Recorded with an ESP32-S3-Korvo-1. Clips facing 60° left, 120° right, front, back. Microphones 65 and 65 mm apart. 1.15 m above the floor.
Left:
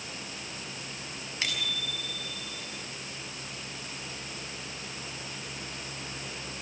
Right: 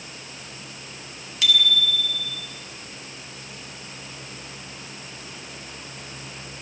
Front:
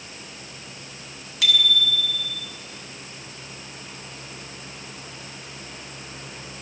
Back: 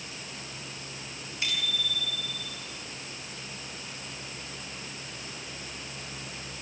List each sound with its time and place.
1.4 s a bicycle bell: straight ahead, 6 m